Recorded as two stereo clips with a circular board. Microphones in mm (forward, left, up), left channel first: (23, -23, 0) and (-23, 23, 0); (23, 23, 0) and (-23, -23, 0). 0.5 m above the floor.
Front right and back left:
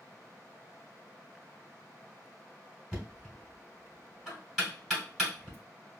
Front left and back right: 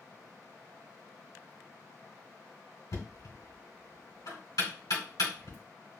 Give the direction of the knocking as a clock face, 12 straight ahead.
11 o'clock.